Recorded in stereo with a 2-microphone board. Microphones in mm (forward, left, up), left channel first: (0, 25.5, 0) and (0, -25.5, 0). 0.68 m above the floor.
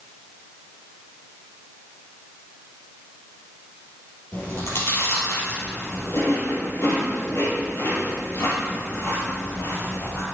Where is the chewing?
60° left (ahead or behind), 3.5 m.